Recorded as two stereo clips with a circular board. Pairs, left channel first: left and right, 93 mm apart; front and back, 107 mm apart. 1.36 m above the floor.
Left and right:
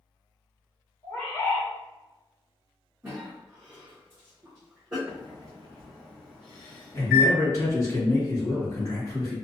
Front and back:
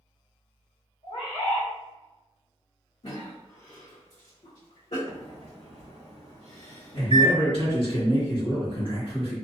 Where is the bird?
15° left, 1.3 m.